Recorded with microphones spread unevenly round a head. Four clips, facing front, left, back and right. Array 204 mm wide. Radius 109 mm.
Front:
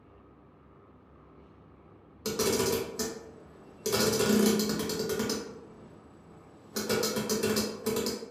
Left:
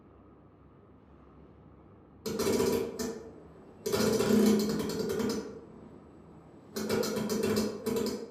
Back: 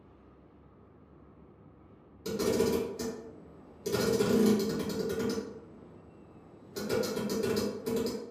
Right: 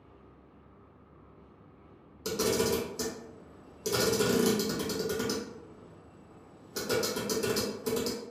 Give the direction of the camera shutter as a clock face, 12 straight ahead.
12 o'clock.